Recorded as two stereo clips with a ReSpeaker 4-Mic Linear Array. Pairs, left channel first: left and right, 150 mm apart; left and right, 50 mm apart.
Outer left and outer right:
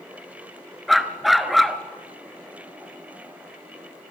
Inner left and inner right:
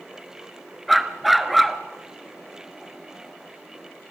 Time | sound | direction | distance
0.9 | a dog barking | centre (ahead or behind) | 1.2 m